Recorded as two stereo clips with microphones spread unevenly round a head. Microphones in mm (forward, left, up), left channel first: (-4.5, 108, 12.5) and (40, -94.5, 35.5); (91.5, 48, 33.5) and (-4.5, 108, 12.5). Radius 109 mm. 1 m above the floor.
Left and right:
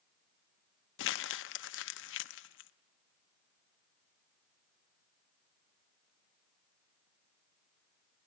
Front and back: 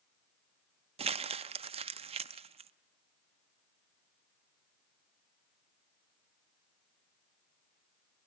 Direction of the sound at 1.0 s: 125° left.